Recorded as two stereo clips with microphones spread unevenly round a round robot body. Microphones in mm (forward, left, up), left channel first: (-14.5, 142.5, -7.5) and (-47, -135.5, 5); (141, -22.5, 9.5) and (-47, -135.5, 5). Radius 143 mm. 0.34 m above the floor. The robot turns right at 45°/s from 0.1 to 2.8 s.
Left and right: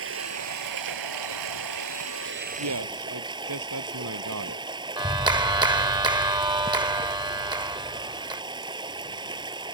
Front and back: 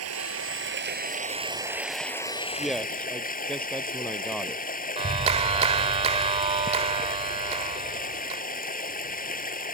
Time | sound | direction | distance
0.0 | running water | 140° right | ?
2.6 | a man speaking | 65° right | ?
5.0 | a clap | 160° right | ?